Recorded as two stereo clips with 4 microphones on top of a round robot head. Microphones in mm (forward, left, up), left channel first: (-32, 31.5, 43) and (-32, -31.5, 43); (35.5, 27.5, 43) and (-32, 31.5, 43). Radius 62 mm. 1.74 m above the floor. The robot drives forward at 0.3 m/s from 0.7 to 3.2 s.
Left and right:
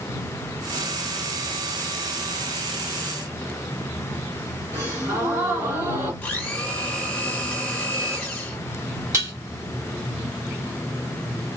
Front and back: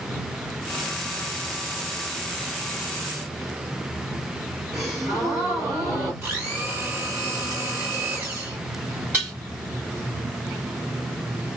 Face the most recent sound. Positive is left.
turn(degrees=-110)